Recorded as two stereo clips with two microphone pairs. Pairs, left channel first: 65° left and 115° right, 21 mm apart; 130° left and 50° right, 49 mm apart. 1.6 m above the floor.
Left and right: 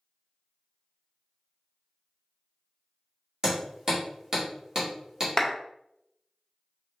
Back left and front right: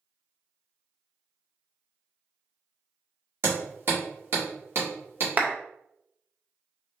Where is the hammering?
55° right, 1.7 m.